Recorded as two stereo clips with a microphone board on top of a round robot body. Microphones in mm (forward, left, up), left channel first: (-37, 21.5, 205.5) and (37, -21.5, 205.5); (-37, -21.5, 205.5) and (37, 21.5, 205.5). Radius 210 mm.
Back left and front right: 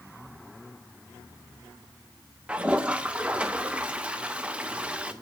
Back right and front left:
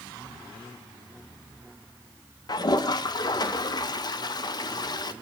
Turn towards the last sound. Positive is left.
turn(degrees=-105)